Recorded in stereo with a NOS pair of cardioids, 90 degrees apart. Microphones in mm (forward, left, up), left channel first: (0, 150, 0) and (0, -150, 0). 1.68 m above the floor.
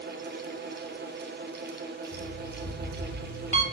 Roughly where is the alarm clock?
Ahead.